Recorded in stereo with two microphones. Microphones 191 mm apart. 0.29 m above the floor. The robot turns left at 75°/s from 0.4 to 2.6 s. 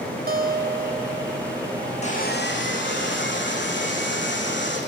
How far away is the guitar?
About 1.6 m.